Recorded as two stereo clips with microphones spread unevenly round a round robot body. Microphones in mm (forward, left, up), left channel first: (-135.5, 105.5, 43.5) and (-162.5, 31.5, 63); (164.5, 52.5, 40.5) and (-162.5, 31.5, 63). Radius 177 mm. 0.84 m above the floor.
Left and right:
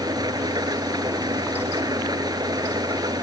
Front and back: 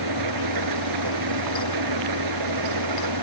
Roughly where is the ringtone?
No ringtone in this recording.